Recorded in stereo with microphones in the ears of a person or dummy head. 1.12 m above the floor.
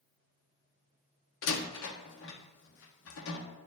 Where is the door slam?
80° left, 1.1 m.